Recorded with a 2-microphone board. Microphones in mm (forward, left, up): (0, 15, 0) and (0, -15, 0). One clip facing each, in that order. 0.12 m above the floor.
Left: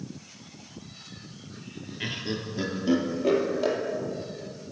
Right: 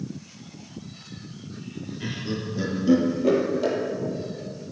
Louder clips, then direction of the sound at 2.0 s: Even; 40° left (ahead or behind).